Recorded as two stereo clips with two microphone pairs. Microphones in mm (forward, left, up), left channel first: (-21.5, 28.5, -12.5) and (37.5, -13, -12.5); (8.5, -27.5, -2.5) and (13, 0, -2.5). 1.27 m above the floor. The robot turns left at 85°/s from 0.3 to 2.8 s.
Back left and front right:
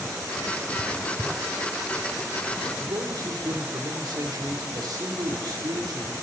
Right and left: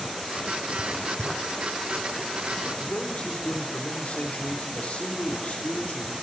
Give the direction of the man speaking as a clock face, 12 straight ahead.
2 o'clock.